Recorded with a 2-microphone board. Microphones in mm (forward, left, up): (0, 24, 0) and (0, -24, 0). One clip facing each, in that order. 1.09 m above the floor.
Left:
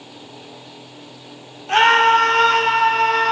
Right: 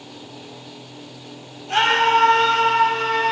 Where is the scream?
55° left (ahead or behind), 2.5 m; by 3.3 s 80° left, 2 m.